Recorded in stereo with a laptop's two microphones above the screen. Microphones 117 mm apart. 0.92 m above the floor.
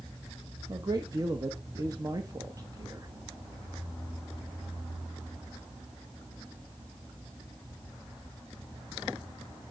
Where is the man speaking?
35° right (ahead or behind), 1.3 m.